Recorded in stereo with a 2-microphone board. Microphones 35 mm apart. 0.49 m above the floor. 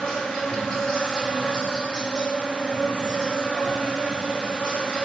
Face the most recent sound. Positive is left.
turn(degrees=25)  # may be behind; listen again after turning